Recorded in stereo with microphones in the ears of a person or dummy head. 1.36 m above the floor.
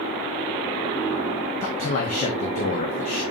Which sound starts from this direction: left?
A man speaking, at 1.6 s.